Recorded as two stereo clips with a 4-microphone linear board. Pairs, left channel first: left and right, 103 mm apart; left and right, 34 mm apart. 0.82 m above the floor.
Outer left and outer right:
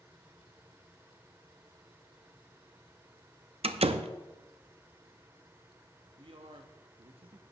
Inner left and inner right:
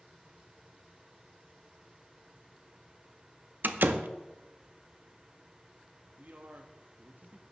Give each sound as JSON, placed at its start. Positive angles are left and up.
{"t": 3.6, "sound": "a door slam", "side_deg": -80, "distance_m": 0.5}
{"t": 6.2, "sound": "a man speaking", "side_deg": -65, "distance_m": 0.8}